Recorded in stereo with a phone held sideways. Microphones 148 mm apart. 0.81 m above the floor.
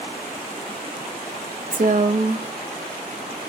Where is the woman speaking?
55° right (ahead or behind), 0.6 m.